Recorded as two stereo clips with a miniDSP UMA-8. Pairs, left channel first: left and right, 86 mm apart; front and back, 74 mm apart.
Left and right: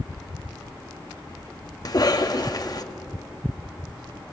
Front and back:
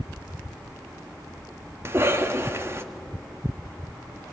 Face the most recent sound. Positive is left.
turn(degrees=125)